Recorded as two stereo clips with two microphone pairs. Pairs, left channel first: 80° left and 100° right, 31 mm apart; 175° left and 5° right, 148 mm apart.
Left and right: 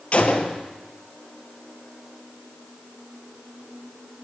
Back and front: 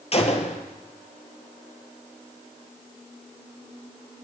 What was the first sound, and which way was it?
A gunshot, 130° left.